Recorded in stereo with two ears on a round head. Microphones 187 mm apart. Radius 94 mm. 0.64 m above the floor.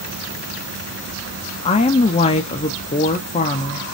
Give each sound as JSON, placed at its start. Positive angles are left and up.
{"t": 1.6, "sound": "a woman speaking", "side_deg": 30, "distance_m": 0.5}